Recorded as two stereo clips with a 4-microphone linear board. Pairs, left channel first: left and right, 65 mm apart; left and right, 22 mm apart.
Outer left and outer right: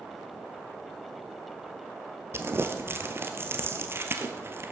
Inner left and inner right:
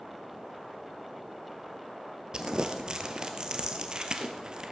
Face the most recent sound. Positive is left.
turn(degrees=-40)  # may be behind; listen again after turning